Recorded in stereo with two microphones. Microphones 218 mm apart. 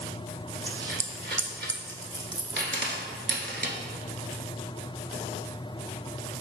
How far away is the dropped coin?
About 0.6 m.